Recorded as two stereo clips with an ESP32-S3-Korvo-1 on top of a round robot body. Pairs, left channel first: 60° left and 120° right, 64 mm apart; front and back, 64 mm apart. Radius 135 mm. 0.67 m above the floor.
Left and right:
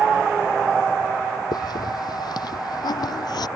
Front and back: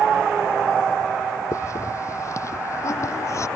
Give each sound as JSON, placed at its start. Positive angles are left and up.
{"t": 1.5, "sound": "a hiss", "azimuth_deg": 45}